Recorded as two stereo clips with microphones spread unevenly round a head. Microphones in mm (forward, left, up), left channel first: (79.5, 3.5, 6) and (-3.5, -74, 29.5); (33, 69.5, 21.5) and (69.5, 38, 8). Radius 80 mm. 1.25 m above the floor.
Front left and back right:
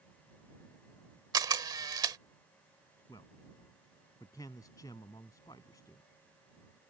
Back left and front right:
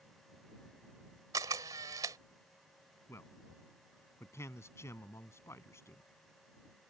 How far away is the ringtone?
No ringtone in this recording.